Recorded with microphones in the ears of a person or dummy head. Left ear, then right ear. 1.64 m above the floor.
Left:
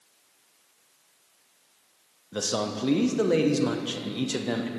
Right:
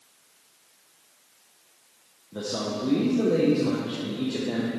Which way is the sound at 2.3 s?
75° left (ahead or behind).